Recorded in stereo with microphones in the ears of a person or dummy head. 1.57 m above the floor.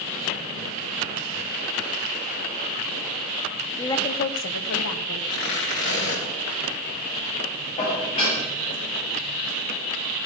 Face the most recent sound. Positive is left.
turn(degrees=35)  # may be behind; listen again after turning